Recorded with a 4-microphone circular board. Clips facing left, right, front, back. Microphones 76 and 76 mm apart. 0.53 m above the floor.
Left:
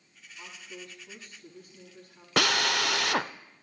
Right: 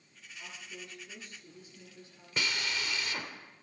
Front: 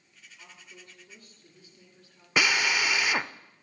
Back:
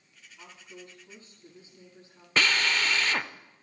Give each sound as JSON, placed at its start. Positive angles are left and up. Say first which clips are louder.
{"t": 0.4, "sound": "a woman speaking", "louder": "left 2 dB, back 5 dB", "azimuth_deg": 120, "distance_m": 6.5}
{"t": 2.4, "sound": "a drill", "louder": "left 9 dB, front 1 dB", "azimuth_deg": 80, "distance_m": 0.6}